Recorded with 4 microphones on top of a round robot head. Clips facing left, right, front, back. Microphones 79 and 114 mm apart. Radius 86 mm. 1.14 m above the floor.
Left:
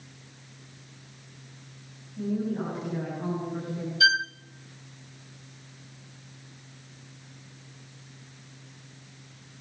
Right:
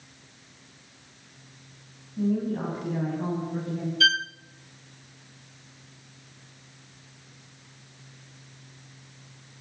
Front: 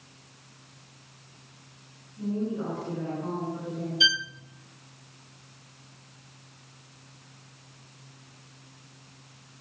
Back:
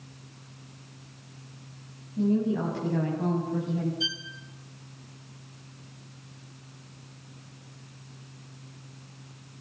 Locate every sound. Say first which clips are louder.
2.2 s a woman speaking: right 3 dB, back 5 dB; 160° right, 8 m; by 3.9 s 165° right, 9 m
4.0 s a violin: left 2 dB, front 7 dB; 15° left, 0.6 m